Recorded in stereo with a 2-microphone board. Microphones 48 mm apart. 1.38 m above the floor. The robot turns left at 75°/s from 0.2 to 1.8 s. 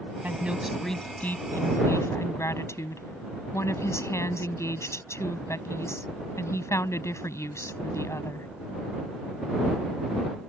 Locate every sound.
0.2 s a woman speaking: 140° right; by 8.5 s 105° left